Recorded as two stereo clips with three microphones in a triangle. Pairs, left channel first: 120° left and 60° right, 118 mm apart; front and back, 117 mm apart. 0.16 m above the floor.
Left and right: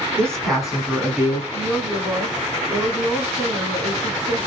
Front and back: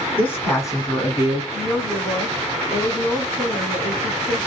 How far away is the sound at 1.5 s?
About 1.2 m.